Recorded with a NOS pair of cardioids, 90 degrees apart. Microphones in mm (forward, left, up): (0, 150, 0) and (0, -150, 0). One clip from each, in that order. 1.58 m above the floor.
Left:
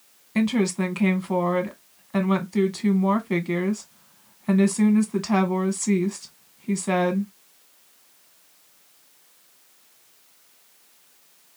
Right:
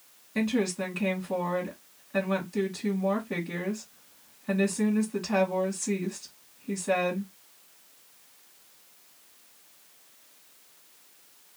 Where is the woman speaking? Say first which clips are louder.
Left 4 dB; 50° left, 1.4 m.